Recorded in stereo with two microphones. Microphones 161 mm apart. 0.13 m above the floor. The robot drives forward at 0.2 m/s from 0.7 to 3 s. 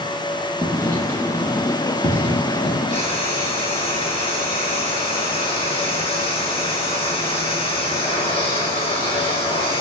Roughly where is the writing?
Centre.